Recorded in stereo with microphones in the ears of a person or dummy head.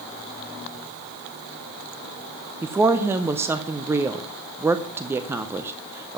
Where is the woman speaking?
5° right (ahead or behind), 0.6 m.